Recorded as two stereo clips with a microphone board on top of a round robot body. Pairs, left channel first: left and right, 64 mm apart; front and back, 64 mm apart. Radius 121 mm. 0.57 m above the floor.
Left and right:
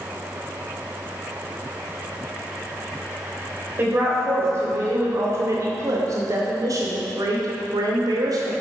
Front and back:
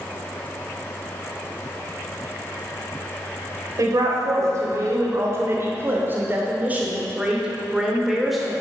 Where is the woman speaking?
150° right, 3 m; by 8.5 s 90° right, 2.5 m.